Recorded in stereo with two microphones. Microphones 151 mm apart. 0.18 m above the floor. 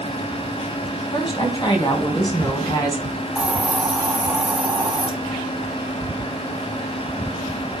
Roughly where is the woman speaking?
Left.